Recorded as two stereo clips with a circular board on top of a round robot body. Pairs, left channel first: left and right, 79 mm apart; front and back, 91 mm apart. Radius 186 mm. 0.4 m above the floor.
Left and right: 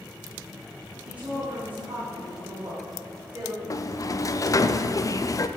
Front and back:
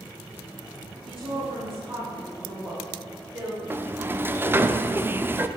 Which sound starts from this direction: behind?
A woman speaking, at 1.1 s.